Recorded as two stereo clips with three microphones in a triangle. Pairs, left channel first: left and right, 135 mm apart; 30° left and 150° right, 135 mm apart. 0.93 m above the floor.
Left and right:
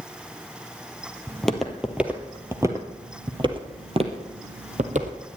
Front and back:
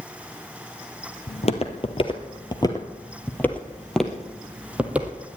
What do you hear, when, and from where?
1.3 s footsteps: 5° left, 1.6 m; by 5.4 s 75° right, 2 m